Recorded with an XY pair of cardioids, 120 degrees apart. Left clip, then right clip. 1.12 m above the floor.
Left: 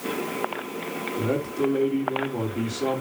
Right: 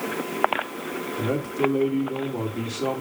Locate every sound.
1.2 s a man speaking: straight ahead, 3.5 m